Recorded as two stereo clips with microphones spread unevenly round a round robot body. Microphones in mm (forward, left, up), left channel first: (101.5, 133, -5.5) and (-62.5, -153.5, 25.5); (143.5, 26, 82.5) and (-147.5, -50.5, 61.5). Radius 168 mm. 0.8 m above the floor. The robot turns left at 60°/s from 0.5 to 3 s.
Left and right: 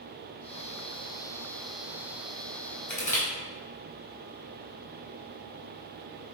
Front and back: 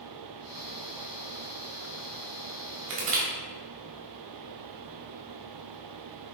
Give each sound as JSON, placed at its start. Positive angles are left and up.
{"t": 2.9, "sound": "crushing", "azimuth_deg": 150, "distance_m": 3.0}